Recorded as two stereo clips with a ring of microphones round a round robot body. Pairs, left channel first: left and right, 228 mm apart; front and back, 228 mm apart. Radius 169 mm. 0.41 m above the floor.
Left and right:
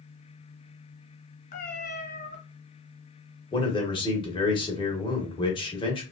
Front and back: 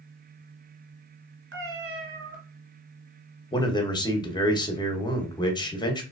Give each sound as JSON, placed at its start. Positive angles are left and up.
{"t": 1.5, "sound": "a cat meowing", "azimuth_deg": 145, "distance_m": 2.0}
{"t": 3.5, "sound": "a man speaking", "azimuth_deg": 50, "distance_m": 0.9}